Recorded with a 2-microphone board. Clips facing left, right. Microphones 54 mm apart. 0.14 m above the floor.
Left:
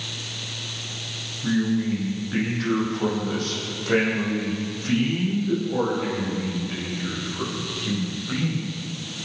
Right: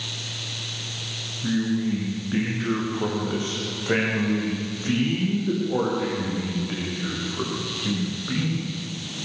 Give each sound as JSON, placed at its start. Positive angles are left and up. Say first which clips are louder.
{"t": 1.4, "sound": "a man speaking", "louder": "left 1 dB", "side_deg": -10, "distance_m": 6.0}